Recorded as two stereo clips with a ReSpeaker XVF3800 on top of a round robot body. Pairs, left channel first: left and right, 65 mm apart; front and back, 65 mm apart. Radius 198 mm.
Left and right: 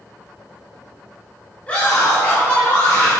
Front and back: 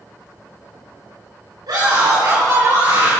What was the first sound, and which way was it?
A scream, 160° left.